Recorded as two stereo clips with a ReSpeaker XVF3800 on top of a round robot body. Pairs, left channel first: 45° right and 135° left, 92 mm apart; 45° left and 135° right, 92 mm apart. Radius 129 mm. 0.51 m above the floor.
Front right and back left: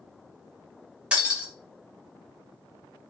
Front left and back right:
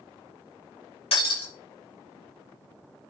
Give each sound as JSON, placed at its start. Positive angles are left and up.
{"t": 1.1, "sound": "breaking glass", "azimuth_deg": 55, "distance_m": 5.5}